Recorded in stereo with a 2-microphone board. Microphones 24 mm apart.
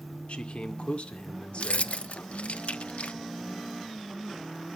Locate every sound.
0.3 s a man speaking: 60° left (ahead or behind), 1.9 m
1.6 s keys jangling: 65° left (ahead or behind), 0.5 m